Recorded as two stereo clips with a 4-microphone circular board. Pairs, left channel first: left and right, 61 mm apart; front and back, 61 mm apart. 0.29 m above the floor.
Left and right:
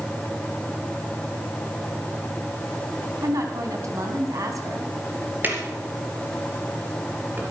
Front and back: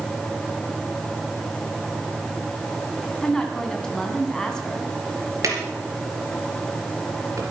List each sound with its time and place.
3.2 s a woman speaking: 80° right, 2.5 m
5.4 s a drawer: 150° right, 3.5 m